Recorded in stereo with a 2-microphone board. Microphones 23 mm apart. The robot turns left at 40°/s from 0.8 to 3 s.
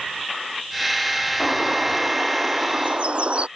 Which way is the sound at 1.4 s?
5° left.